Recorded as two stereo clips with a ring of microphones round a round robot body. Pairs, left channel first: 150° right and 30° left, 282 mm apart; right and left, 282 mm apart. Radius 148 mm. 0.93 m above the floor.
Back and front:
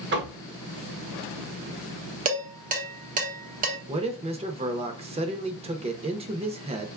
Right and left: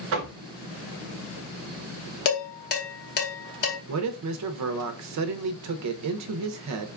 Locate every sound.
0.1 s knocking: 70° left, 0.8 m
2.2 s dishes clattering: 35° right, 1.0 m
3.9 s a man speaking: 95° left, 0.6 m